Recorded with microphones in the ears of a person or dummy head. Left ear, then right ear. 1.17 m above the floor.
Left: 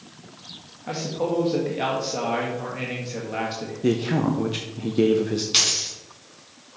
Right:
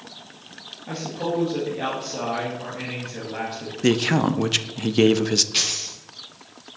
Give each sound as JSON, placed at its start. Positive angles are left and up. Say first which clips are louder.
{"t": 0.9, "sound": "a man speaking", "louder": "left 2 dB", "side_deg": 30, "distance_m": 1.6}
{"t": 3.8, "sound": "a man speaking", "louder": "right 3 dB", "side_deg": -45, "distance_m": 0.5}
{"t": 5.5, "sound": "a dropped coin", "louder": "left 3 dB", "side_deg": 30, "distance_m": 3.5}